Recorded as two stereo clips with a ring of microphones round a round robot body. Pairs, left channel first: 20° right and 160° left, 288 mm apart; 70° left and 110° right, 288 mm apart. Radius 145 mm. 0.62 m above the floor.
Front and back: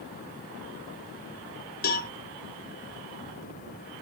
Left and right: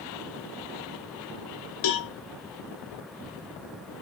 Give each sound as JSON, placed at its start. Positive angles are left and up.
{"t": 1.8, "sound": "a cowbell", "azimuth_deg": 35, "distance_m": 0.8}